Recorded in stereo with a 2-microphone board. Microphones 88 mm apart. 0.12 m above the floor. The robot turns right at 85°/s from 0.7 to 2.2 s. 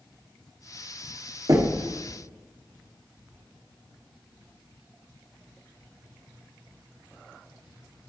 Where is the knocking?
45° right (ahead or behind), 1.1 m; by 1.8 s 50° right (ahead or behind), 1.1 m.